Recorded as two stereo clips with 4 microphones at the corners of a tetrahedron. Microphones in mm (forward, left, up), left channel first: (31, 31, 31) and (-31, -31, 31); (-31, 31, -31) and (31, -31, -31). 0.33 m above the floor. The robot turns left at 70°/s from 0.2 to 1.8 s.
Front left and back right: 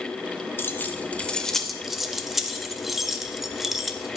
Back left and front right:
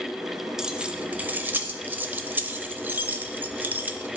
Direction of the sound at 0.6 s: 30° left.